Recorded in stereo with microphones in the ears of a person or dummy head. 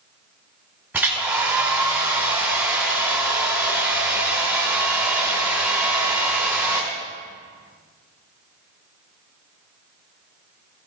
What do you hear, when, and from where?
0.9 s a hair dryer: 10° right (ahead or behind), 2 m